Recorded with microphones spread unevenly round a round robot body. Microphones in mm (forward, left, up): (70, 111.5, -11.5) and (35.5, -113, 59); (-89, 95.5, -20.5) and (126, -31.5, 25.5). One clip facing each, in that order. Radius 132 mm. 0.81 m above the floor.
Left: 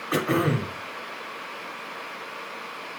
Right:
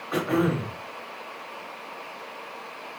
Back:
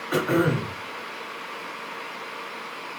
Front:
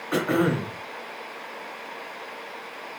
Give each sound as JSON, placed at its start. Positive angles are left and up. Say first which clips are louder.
{"t": 0.1, "sound": "throat clearing", "louder": "even, even", "azimuth_deg": 45, "distance_m": 0.6}